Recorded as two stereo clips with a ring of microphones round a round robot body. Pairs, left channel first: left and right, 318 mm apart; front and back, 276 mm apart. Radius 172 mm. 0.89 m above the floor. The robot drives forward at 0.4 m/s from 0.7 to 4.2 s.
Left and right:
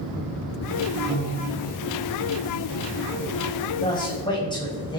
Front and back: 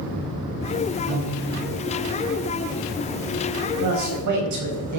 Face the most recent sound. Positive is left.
turn(degrees=165)